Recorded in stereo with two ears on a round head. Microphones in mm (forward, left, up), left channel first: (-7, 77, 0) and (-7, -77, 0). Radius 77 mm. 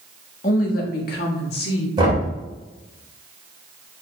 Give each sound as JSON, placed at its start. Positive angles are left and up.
{"t": 0.4, "sound": "a woman speaking", "side_deg": 45, "distance_m": 1.3}
{"t": 2.0, "sound": "knocking", "side_deg": -30, "distance_m": 2.5}